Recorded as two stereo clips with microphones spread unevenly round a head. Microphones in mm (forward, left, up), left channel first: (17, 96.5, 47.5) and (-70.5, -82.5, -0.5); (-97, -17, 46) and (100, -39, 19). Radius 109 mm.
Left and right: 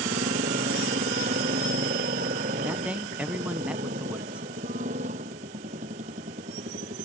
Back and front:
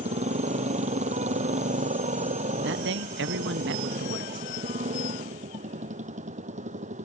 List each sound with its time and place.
0.0 s a motorcycle: 60° right
2.6 s a man speaking: 30° right